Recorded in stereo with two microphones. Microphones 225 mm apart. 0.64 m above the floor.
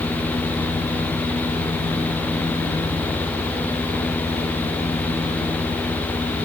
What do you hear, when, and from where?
Only background noise.